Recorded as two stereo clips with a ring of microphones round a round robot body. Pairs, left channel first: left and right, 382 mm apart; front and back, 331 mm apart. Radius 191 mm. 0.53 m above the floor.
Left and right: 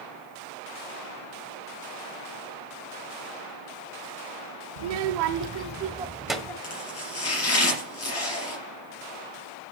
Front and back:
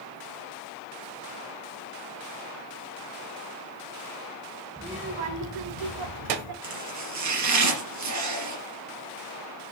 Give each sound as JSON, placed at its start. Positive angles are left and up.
{"t": 4.8, "sound": "a child speaking", "azimuth_deg": -95, "distance_m": 0.9}
{"t": 6.6, "sound": "chopping", "azimuth_deg": 145, "distance_m": 3.5}